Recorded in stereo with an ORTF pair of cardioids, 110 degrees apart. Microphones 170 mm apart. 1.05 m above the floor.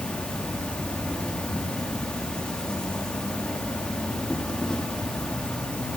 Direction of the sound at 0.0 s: 5° left.